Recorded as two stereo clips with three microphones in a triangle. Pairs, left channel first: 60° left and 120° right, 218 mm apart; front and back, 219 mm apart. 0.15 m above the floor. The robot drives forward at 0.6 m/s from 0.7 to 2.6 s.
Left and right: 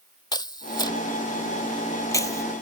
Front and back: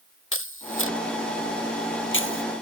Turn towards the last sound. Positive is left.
turn(degrees=-15)